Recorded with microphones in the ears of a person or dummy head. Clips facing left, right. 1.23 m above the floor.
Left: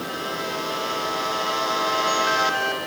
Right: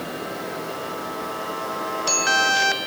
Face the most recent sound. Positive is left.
No sound to turn to.